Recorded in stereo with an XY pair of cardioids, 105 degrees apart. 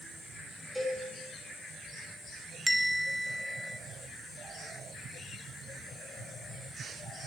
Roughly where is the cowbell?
Ahead.